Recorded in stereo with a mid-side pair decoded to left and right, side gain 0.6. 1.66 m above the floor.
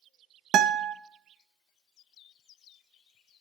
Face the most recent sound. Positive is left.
turn(degrees=-55)